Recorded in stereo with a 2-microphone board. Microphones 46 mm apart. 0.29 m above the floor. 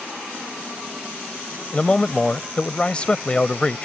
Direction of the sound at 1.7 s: 25° left (ahead or behind).